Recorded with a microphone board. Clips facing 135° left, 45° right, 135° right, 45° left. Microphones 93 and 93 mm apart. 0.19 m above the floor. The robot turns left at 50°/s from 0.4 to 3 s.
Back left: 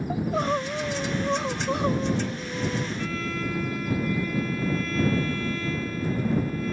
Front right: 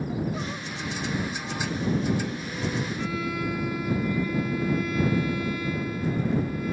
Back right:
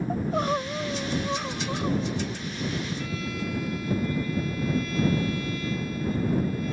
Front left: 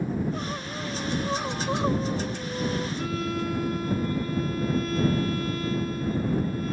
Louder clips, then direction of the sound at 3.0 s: Front right 1 dB, front left 3 dB; 30° left.